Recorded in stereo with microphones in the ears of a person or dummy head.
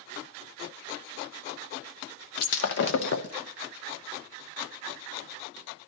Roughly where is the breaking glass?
Left.